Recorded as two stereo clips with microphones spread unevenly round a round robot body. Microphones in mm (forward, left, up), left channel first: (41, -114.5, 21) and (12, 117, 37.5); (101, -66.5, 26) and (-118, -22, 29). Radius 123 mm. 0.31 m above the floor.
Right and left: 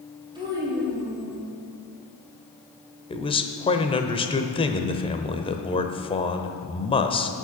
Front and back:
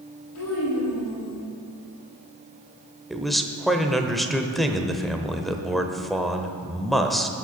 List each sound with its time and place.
0.3 s a child speaking: 25° left, 5.5 m; by 1.4 s 20° left, 6 m
3.1 s a man speaking: 100° right, 0.9 m